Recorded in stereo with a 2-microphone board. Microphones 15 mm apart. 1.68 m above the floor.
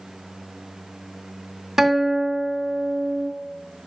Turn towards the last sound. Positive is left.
turn(degrees=-30)  # may be behind; listen again after turning